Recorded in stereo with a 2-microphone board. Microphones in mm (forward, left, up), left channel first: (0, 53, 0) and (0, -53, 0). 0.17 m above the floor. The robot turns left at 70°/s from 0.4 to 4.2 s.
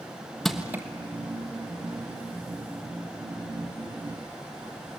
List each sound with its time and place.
0.5 s crushing: centre (ahead or behind), 1.3 m; by 0.8 s 25° right (ahead or behind), 1.3 m